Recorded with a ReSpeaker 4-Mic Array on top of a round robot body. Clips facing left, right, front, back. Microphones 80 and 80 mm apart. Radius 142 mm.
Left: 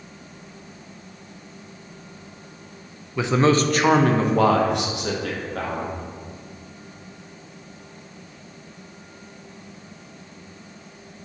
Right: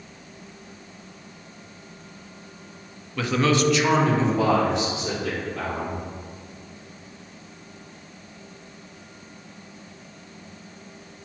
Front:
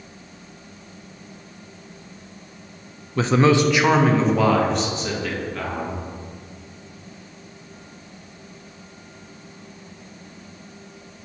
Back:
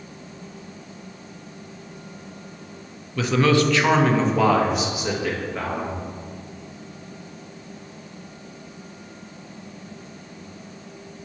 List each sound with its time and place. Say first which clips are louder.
3.2 s a man speaking: left 3 dB, front 2 dB; 25° left, 0.7 m; by 6.0 s 100° left, 1.9 m